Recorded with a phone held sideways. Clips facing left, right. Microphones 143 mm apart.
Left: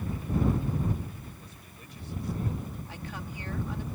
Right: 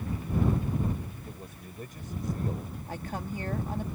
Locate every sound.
1.3 s a man speaking: 50° right (ahead or behind); by 2.8 s 40° right (ahead or behind)
2.9 s a woman speaking: 45° right (ahead or behind)